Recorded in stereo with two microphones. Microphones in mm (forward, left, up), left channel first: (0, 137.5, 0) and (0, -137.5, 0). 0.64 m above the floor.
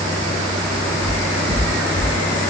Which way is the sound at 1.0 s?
55° left (ahead or behind).